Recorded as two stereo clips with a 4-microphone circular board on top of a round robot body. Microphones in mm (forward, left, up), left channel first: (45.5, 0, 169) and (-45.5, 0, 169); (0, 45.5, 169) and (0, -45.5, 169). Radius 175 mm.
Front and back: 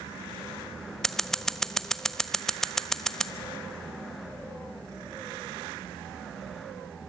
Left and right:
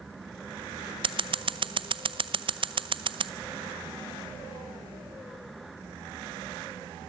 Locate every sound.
1.0 s scissors: 85° right, 0.9 m